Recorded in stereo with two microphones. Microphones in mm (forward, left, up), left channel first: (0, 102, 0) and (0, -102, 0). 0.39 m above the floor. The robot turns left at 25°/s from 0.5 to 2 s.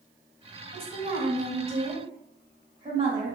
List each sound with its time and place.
0.7 s a woman speaking: 115° right, 1.5 m; by 3.4 s 145° right, 1.5 m